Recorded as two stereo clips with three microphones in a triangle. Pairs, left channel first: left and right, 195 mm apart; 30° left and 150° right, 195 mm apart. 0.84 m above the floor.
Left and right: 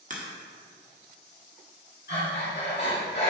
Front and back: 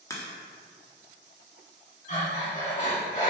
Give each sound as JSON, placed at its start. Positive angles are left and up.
{"t": 0.1, "sound": "a crack", "azimuth_deg": -45, "distance_m": 1.1}
{"t": 2.1, "sound": "breathing", "azimuth_deg": 75, "distance_m": 2.0}